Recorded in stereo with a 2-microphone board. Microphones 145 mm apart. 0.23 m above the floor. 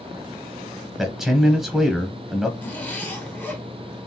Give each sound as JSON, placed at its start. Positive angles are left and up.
{"t": 1.0, "sound": "a man speaking", "side_deg": 0, "distance_m": 1.1}
{"t": 2.6, "sound": "a zipper", "side_deg": 15, "distance_m": 1.4}